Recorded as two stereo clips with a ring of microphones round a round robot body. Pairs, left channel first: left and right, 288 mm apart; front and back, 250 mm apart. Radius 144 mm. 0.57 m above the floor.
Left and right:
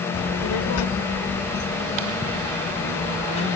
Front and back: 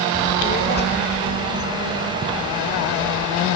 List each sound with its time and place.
0.1 s a child speaking: 70° left, 1.1 m; by 3.6 s 20° left, 2.5 m